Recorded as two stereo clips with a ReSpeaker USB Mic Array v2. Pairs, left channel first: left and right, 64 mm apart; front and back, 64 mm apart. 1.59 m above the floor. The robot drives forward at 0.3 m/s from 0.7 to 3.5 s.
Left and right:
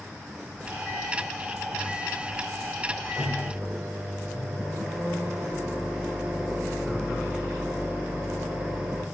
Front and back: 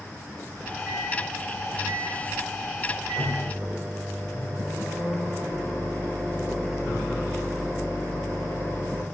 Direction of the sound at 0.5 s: 175° right.